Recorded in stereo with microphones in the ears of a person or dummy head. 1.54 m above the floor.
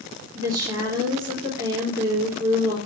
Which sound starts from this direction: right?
A woman speaking, at 0.3 s.